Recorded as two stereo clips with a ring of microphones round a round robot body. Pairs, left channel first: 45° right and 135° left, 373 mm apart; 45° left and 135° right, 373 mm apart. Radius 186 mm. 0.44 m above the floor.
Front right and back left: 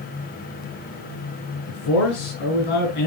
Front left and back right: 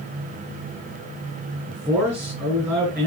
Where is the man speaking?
50° right, 4.5 m.